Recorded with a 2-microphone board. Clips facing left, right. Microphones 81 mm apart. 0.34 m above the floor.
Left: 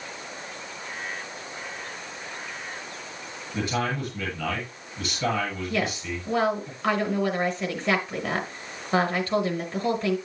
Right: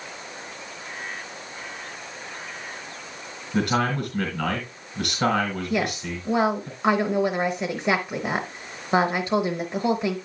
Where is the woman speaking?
20° right (ahead or behind), 1.1 m.